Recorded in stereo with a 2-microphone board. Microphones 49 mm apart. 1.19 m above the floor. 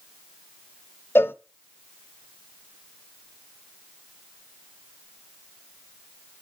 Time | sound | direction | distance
1.1 | a cowbell | 50° left (ahead or behind) | 0.6 m